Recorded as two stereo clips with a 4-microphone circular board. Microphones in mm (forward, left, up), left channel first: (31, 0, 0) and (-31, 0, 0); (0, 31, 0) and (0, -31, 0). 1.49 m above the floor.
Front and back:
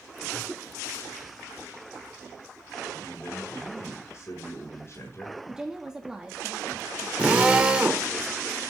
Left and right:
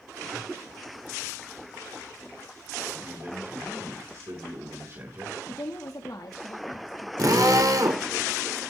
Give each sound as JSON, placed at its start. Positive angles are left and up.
{"t": 2.9, "sound": "a man speaking", "azimuth_deg": -50, "distance_m": 6.0}
{"t": 5.5, "sound": "a woman speaking", "azimuth_deg": 100, "distance_m": 2.0}
{"t": 7.2, "sound": "a drill", "azimuth_deg": -110, "distance_m": 3.0}